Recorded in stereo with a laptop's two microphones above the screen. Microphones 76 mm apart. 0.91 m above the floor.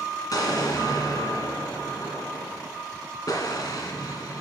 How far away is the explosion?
About 2.5 m.